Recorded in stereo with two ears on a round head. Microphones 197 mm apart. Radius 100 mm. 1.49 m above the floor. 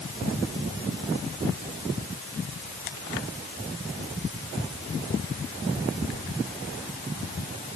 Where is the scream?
No scream in this recording.